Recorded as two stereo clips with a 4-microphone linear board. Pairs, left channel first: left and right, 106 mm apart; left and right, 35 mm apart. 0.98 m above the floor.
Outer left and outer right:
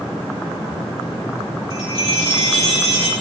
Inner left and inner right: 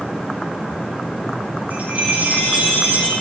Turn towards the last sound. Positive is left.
turn(degrees=-50)  # may be behind; listen again after turning